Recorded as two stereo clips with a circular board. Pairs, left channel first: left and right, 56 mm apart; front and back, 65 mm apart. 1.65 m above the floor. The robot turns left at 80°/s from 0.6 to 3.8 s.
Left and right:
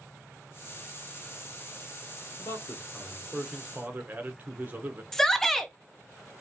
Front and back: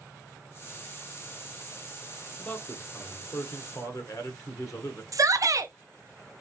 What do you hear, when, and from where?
2.4 s a man speaking: 80° left, 1.0 m; by 5.0 s 35° right, 1.0 m
5.1 s a shout: 170° left, 0.8 m